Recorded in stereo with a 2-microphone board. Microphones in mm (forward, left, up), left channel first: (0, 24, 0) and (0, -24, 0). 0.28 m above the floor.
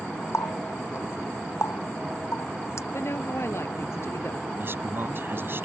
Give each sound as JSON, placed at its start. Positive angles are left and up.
{"t": 0.3, "sound": "a running tap", "side_deg": 70}
{"t": 2.9, "sound": "a woman speaking", "side_deg": 65}
{"t": 4.6, "sound": "a man speaking", "side_deg": -50}